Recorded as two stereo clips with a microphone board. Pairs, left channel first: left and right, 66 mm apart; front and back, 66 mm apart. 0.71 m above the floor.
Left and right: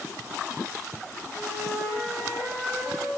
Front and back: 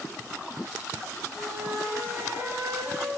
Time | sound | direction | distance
1.3 | a flute | 175° right | 3 m